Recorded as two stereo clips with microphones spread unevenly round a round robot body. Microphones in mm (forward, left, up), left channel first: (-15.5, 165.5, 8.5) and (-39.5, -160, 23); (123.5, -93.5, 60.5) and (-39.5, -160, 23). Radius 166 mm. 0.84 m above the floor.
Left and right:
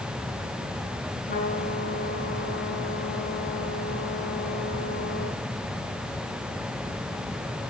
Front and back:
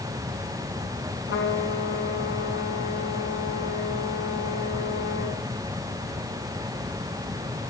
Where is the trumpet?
20° left, 7 m.